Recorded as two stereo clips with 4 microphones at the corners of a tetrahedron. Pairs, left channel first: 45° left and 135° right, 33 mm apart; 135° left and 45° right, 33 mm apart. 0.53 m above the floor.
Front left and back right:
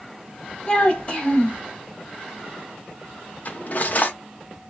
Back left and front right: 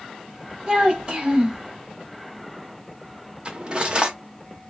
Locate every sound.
0.7 s a child speaking: 5° left, 1.2 m
3.5 s cutlery clinking: 10° left, 0.6 m